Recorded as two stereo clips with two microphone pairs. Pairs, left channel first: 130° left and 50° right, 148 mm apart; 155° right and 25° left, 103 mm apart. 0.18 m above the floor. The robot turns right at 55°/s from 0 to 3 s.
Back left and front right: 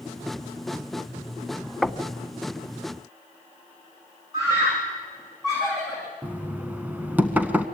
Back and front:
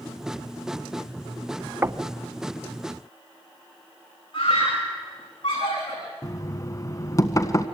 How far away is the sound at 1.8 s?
About 0.8 m.